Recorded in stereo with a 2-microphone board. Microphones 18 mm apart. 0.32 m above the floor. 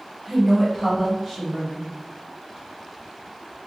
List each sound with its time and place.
0.3 s a woman speaking: 30° right (ahead or behind), 1.6 m